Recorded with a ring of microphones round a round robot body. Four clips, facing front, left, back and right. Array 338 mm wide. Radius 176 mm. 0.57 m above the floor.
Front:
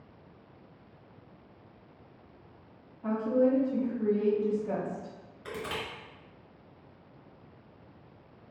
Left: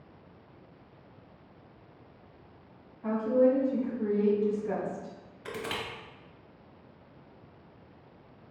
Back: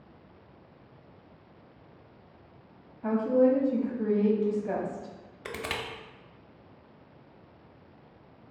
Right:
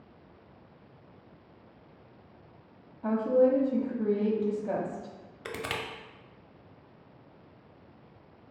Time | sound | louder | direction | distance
3.0 | a woman speaking | right 1 dB, back 3 dB | 125° right | 1.0 m
5.5 | crushing | even, back 1 dB | 140° right | 0.6 m